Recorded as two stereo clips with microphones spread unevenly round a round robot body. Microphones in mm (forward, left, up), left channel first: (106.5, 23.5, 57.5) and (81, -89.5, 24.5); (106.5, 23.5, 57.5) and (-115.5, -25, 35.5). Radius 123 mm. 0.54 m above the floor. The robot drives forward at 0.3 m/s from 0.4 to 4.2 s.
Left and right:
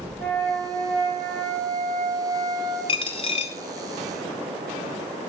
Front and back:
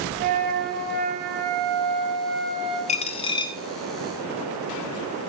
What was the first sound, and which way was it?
A flute, 160° left.